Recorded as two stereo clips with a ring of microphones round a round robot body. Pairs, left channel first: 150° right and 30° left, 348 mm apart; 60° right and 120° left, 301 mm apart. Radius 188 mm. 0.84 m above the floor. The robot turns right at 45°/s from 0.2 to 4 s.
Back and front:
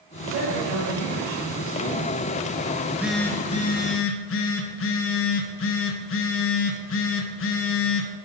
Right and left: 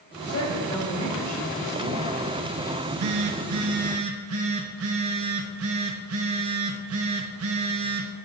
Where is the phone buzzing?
100° left, 0.8 m; by 8.1 s 160° left, 0.8 m.